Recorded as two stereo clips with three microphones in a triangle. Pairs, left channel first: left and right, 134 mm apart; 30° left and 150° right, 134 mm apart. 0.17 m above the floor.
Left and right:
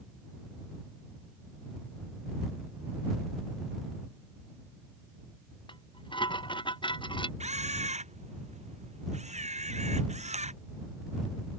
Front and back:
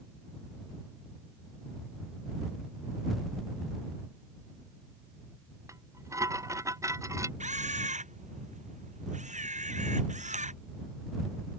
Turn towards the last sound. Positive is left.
turn(degrees=-125)